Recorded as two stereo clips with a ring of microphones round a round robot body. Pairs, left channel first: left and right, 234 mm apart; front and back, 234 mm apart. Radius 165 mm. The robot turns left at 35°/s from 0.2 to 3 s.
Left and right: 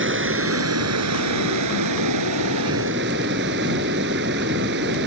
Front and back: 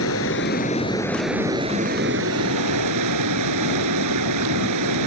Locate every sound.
0.0 s running water: 55° right; by 5.1 s 150° right